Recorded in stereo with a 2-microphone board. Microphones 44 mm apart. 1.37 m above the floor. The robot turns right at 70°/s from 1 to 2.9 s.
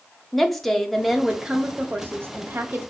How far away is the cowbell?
No cowbell in this recording.